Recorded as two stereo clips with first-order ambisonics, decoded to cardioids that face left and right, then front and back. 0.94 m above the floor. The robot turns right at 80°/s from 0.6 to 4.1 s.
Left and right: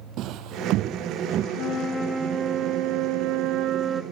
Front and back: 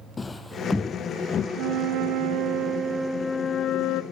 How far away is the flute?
About 0.8 m.